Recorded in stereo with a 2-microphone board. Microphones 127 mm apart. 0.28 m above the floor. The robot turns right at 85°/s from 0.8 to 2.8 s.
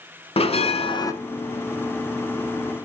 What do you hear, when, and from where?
0.4 s a bell: 50° left (ahead or behind), 0.9 m; by 1.1 s 25° left (ahead or behind), 0.9 m